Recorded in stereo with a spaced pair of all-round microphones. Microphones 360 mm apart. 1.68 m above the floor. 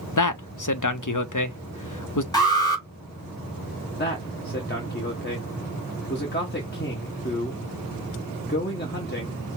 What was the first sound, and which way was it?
A man speaking, 55° left (ahead or behind).